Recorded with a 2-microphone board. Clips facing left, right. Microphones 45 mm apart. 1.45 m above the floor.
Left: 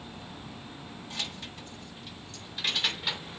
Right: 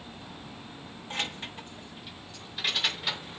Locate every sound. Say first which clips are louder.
1.1 s keys jangling: right 5 dB; 35° right (ahead or behind), 1.4 m; by 3.4 s 5° left (ahead or behind), 3 m